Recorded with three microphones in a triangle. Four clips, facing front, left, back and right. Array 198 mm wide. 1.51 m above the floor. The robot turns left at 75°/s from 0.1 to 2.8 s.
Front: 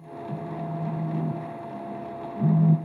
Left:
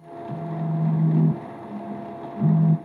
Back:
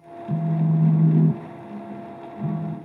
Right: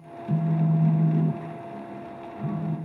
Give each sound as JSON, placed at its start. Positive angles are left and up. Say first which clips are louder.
{"t": 0.3, "sound": "a phone buzzing", "louder": "right 5 dB, back 9 dB", "azimuth_deg": -135, "distance_m": 1.0}